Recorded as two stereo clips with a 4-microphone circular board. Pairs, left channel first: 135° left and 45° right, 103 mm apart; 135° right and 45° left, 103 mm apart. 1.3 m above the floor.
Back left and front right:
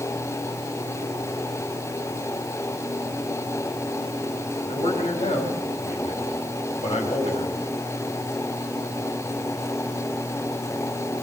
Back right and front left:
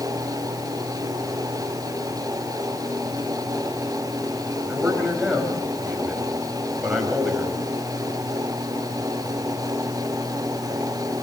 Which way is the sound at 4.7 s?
130° left.